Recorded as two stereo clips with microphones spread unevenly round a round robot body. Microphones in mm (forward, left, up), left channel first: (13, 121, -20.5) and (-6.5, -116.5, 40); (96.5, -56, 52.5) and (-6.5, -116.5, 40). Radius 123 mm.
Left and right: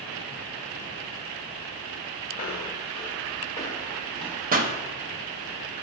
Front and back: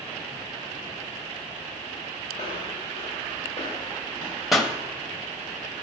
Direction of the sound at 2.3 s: 150° left.